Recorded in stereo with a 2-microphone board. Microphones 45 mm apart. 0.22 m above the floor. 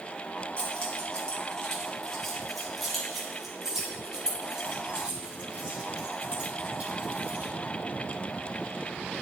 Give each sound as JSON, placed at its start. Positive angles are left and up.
{"t": 0.6, "sound": "keys jangling", "side_deg": 30, "distance_m": 4.0}